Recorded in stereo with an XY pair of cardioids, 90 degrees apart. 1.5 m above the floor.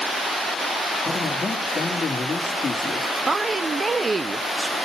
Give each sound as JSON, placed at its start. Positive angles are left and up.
{"t": 1.1, "sound": "a man speaking", "azimuth_deg": 40, "distance_m": 3.0}
{"t": 3.3, "sound": "a woman speaking", "azimuth_deg": -30, "distance_m": 0.9}